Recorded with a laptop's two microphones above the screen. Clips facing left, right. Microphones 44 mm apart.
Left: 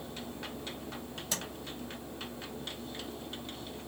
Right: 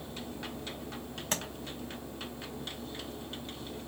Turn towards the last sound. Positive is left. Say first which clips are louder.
# right 4 dB
turn(degrees=-40)  # may be behind; listen again after turning